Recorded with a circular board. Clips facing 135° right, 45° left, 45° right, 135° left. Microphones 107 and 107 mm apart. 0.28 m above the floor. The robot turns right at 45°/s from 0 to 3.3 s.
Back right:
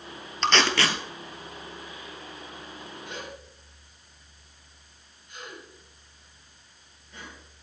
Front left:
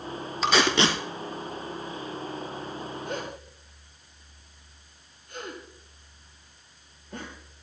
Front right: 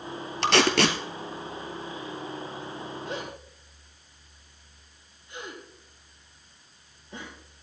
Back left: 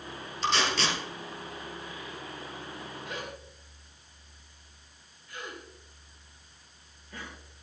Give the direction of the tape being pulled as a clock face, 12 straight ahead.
1 o'clock.